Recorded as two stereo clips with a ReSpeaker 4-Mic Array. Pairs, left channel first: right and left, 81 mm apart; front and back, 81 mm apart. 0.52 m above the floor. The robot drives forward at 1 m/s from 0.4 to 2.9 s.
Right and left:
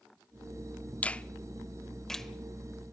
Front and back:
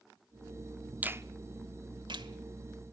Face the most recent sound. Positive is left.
turn(degrees=-175)